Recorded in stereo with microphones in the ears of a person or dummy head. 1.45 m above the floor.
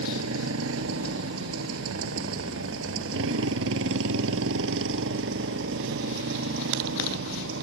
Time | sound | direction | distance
0.0 | a motorcycle | 85° right | ?